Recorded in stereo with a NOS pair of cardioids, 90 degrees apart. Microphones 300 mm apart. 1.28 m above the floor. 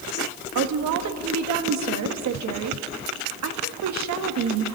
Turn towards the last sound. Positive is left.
turn(degrees=-65)